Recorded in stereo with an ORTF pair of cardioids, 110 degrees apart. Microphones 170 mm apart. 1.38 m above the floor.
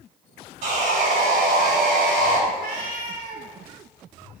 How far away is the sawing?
About 3 m.